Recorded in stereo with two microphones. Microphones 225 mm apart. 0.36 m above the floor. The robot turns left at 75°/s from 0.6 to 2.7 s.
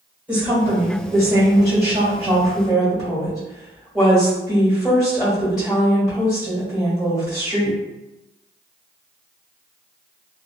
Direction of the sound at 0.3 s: 15° right.